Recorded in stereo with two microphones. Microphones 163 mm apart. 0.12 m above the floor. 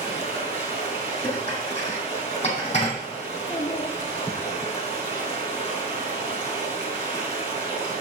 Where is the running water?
35° left (ahead or behind), 3.5 m.